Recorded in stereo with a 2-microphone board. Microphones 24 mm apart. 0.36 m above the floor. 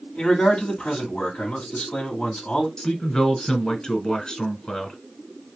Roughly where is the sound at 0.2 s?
Left.